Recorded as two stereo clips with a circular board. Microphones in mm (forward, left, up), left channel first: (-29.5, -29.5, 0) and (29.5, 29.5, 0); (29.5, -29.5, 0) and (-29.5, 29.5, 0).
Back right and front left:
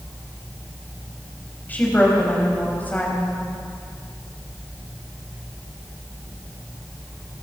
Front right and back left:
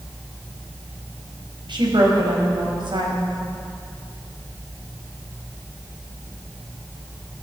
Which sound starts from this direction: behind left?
A woman speaking, at 1.7 s.